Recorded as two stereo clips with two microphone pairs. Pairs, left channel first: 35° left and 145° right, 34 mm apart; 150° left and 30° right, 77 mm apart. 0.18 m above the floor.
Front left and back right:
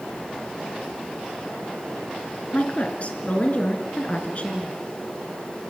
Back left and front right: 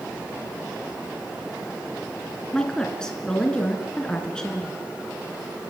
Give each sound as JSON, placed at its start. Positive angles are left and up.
{"t": 2.5, "sound": "a woman speaking", "azimuth_deg": 75, "distance_m": 2.5}